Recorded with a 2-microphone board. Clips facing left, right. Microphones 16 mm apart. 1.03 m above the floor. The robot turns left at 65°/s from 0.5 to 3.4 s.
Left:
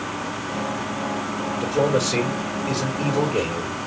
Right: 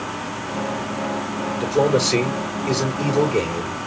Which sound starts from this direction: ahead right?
A man speaking, at 1.6 s.